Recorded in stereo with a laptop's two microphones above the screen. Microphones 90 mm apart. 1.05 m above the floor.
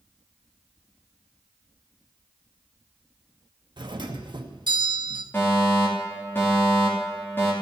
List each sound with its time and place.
3.8 s a doorbell: 60° right (ahead or behind), 1.2 m
5.3 s a fire alarm: 25° left (ahead or behind), 3.5 m